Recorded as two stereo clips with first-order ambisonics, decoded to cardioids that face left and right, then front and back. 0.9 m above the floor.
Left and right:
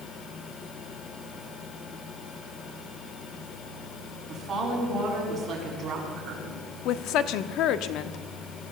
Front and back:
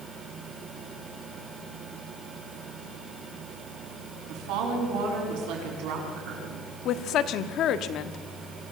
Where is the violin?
No violin in this recording.